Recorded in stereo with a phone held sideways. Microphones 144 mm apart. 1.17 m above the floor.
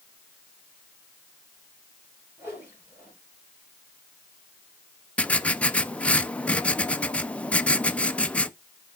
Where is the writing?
10° left (ahead or behind), 0.5 m.